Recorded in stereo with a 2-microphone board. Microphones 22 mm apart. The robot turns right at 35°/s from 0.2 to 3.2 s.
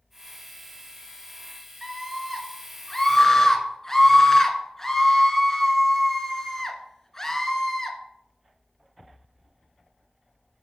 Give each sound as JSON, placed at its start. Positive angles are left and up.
{"t": 1.8, "sound": "a scream", "azimuth_deg": -20, "distance_m": 1.3}